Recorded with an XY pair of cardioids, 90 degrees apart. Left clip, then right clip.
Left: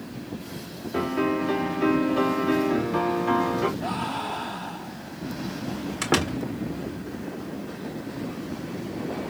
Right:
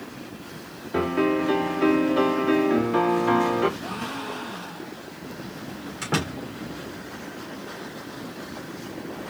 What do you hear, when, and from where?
0.9 s a piano: 15° right, 1.7 m
3.8 s a gasp: 65° left, 2.5 m
6.0 s a door slam: 60° left, 2.5 m